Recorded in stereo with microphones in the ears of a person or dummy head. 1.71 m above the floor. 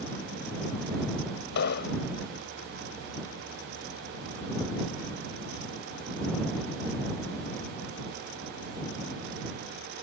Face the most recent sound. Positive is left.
turn(degrees=60)  # may be behind; listen again after turning